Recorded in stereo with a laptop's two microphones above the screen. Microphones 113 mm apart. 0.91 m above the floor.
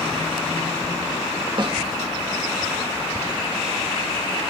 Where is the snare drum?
45° right (ahead or behind), 1.3 m.